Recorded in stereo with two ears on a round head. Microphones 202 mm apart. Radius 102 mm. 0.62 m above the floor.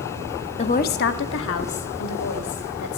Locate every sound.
0.6 s a woman speaking: 25° left (ahead or behind), 0.6 m; by 3.0 s 75° left (ahead or behind), 2.5 m